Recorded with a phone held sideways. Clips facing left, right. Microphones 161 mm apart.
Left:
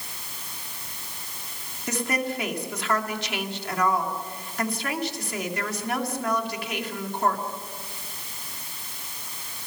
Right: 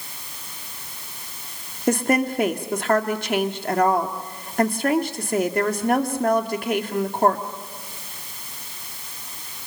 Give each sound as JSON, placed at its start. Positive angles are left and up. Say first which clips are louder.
{"t": 1.9, "sound": "a woman speaking", "louder": "right 8 dB", "side_deg": -50, "distance_m": 2.0}